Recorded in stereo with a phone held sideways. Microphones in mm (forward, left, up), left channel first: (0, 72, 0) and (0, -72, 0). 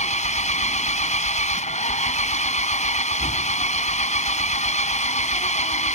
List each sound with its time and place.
0.0 s an engine running: 50° left (ahead or behind)